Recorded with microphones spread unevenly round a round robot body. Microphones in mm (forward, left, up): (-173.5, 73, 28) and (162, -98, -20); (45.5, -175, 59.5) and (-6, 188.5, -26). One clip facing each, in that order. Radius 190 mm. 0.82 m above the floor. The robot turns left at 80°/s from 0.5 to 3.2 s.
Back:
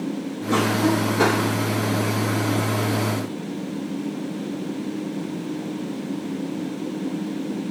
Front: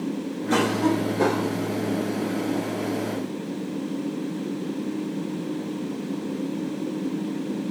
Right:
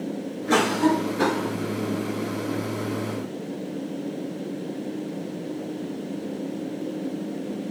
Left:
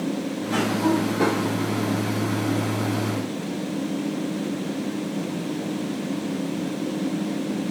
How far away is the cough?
About 0.7 m.